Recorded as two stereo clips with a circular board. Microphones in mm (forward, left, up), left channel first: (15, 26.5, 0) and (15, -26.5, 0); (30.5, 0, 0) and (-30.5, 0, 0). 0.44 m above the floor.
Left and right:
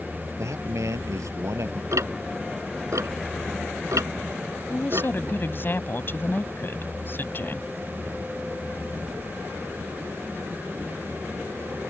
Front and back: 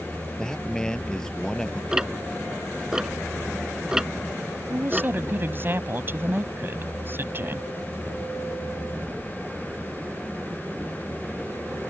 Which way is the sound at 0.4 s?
80° right.